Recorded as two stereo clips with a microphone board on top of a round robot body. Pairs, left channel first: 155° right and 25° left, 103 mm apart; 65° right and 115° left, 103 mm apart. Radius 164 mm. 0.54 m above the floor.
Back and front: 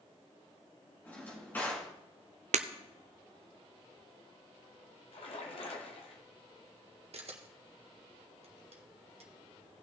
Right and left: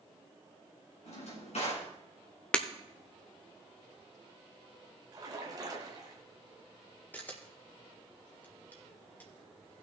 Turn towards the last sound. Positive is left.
turn(degrees=5)